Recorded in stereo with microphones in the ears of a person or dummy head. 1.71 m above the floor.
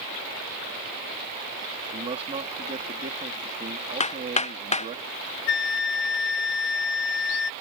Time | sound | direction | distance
1.9 | a man speaking | 35° right (ahead or behind) | ?
4.0 | hammering | 45° left (ahead or behind) | ?
5.5 | a flute | 70° left (ahead or behind) | ?